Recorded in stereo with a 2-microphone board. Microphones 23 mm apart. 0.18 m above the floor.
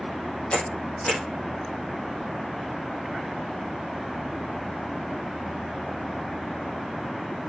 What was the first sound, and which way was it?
A camera shutter, 70° left (ahead or behind).